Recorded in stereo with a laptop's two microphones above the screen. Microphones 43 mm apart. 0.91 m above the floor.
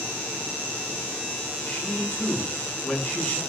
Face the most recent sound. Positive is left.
turn(degrees=5)  # may be behind; listen again after turning